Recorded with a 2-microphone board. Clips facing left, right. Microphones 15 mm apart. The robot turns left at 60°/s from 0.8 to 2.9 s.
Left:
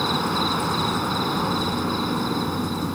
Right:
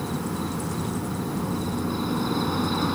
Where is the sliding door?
No sliding door in this recording.